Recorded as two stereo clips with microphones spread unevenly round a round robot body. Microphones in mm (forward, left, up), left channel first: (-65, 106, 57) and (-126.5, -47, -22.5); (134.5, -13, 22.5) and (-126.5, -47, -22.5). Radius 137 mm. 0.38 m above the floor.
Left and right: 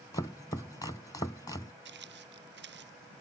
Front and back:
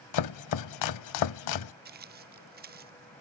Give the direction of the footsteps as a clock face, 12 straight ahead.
4 o'clock.